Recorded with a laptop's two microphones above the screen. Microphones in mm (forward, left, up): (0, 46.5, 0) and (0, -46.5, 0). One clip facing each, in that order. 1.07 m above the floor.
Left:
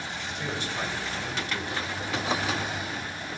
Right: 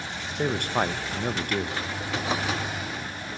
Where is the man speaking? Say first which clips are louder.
Right 8 dB; 55° right (ahead or behind), 0.6 m.